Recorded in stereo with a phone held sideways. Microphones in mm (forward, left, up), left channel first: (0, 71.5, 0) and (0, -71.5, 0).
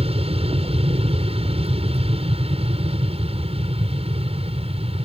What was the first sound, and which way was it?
An aircraft, 40° right (ahead or behind).